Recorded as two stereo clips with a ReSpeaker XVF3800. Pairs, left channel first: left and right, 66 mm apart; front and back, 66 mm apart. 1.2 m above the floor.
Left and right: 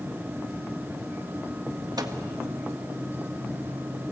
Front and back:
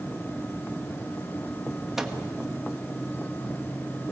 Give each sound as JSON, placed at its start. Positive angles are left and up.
{"t": 2.0, "sound": "a microwave", "azimuth_deg": -95, "distance_m": 1.4}